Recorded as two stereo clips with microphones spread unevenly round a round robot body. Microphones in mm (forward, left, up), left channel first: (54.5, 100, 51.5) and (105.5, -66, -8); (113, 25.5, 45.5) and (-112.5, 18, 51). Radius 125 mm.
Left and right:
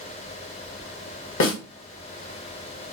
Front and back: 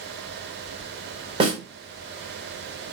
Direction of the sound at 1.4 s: 120° left.